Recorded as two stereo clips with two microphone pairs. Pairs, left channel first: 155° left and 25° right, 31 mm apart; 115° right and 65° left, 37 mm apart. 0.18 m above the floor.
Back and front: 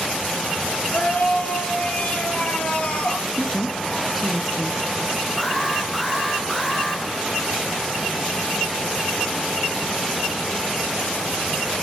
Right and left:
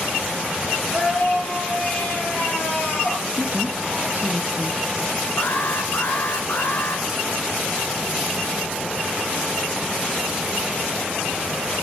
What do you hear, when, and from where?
0.9 s a scream: 175° right, 4.5 m; by 3.2 s 150° right, 5.5 m
3.4 s a woman speaking: 60° left, 1.9 m
5.4 s an alarm: 115° right, 2 m